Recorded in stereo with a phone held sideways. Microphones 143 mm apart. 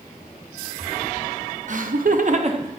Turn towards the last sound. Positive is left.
turn(degrees=-35)  # may be behind; listen again after turning